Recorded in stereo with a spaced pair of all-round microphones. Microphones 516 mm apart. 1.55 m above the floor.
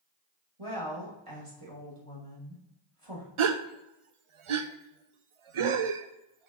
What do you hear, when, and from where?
0.6 s a woman speaking: 85° right, 2.5 m
3.4 s a gasp: 70° right (ahead or behind), 0.5 m